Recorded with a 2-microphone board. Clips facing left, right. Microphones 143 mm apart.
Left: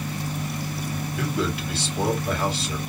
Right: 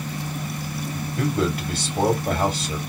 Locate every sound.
1.2 s a man speaking: 45° right (ahead or behind), 3.5 m